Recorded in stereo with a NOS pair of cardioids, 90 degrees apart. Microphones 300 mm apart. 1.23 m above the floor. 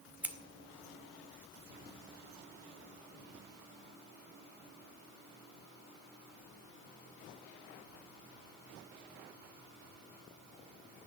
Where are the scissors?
5° right, 2 m.